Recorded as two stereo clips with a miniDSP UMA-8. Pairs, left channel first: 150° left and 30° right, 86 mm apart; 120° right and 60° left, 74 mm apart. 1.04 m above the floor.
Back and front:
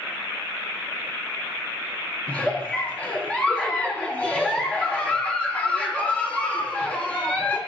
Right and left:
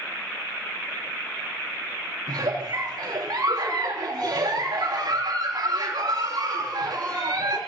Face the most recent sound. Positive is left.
turn(degrees=75)